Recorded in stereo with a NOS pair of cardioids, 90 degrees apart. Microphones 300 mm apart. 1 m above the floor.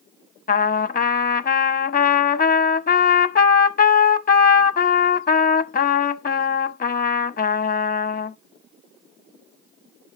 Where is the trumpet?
30° left, 0.7 m.